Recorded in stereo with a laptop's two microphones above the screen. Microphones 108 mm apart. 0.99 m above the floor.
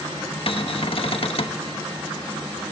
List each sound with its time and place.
0.5 s a cupboard door: 60° left (ahead or behind), 1.2 m